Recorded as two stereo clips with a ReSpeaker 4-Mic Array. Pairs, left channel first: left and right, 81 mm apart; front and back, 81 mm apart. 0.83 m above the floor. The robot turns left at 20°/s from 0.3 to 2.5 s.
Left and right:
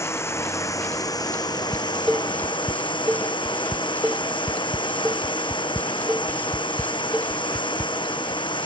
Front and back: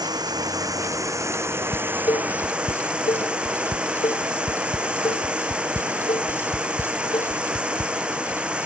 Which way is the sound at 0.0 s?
145° left.